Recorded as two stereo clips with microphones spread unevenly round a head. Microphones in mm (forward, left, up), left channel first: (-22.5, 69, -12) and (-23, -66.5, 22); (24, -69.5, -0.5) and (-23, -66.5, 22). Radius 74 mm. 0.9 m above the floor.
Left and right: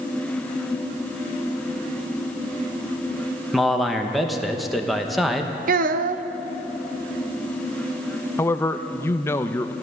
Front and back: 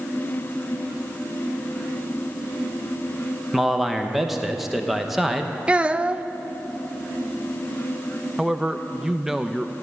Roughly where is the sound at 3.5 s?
Ahead left.